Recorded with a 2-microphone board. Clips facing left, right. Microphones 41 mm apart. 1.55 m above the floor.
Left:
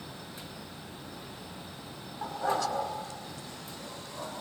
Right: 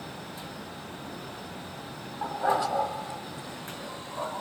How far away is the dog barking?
About 3 m.